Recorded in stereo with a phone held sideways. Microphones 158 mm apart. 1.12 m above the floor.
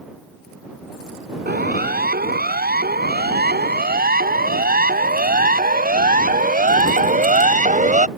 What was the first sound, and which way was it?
A siren, 75° right (ahead or behind).